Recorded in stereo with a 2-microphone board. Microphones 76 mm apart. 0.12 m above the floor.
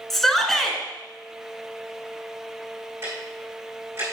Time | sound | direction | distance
0.1 | a shout | 5° left (ahead or behind) | 1.2 m
3.0 | ticking | 35° right (ahead or behind) | 4 m